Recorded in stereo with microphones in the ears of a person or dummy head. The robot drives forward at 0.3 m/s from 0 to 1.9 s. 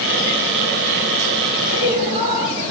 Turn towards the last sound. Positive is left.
turn(degrees=-35)  # may be behind; listen again after turning